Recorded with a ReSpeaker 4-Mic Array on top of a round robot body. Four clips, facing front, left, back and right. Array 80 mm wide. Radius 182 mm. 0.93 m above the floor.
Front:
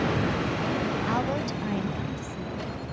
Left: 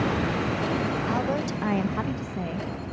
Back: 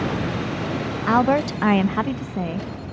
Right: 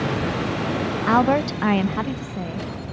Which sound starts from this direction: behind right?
A woman speaking, at 1.1 s.